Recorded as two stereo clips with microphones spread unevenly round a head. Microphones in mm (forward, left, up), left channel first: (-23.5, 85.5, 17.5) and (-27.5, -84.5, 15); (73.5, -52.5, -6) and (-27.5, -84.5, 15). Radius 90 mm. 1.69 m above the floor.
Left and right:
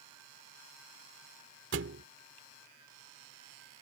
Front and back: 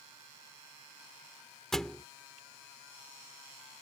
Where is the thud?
75° right.